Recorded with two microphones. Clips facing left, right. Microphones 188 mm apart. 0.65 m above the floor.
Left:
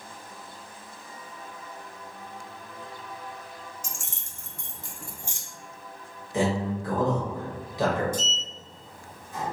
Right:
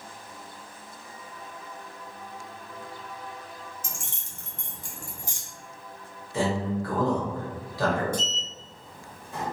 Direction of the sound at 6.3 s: 20° left (ahead or behind).